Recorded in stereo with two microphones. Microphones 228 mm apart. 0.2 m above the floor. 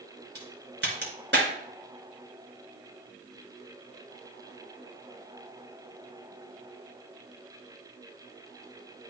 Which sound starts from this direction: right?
A crack, at 0.3 s.